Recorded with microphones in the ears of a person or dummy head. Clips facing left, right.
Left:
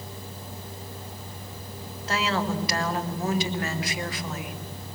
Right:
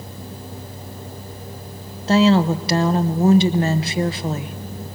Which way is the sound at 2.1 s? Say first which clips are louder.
Right 12 dB; 30° right (ahead or behind).